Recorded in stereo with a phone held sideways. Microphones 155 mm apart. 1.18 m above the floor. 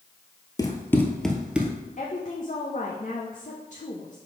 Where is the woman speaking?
55° left (ahead or behind), 0.9 m.